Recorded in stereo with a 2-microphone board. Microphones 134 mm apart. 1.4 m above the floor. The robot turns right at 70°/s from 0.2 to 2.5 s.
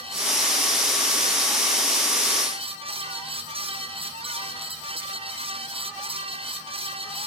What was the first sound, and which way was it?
Only background noise.